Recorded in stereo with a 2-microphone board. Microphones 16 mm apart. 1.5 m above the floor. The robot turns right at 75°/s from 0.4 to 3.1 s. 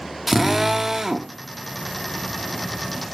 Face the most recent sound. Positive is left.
turn(degrees=50)